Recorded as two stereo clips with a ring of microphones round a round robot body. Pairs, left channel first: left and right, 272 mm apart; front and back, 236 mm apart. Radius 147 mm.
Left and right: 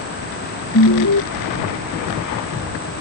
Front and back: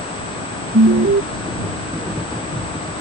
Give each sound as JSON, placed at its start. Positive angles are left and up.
{"t": 0.7, "sound": "an alarm", "azimuth_deg": 135}